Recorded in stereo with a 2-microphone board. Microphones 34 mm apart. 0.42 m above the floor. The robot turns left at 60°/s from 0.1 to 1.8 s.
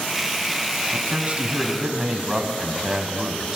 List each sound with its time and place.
0.9 s a man speaking: 110° right, 3 m; by 3.6 s 165° right, 3 m